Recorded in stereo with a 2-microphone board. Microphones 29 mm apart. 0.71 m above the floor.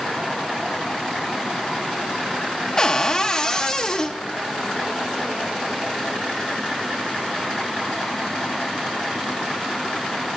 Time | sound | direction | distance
2.8 | a cupboard door | 25° left (ahead or behind) | 0.5 m